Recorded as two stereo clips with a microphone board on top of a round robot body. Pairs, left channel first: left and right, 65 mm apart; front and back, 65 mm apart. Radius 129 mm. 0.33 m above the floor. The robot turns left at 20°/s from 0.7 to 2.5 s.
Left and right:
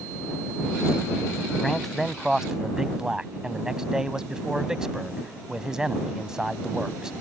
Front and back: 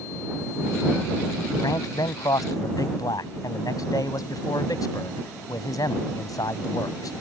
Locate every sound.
1.6 s a man speaking: 5° left; by 7.1 s 10° right